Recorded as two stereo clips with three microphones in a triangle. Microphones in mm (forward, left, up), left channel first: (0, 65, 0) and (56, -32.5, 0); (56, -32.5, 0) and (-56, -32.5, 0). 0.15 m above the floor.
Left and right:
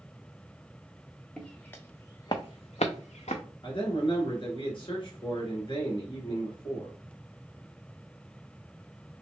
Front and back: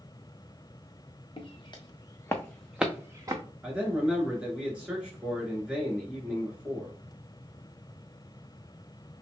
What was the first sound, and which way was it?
Footsteps, 35° left.